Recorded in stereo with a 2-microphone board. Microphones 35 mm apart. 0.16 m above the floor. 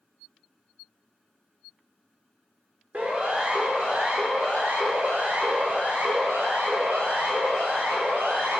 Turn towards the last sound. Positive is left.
turn(degrees=-65)  # may be behind; listen again after turning